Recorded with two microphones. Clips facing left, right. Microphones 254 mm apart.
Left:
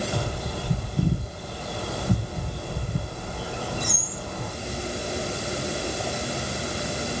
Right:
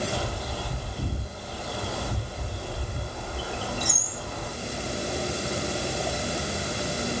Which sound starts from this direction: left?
A bird, at 0.1 s.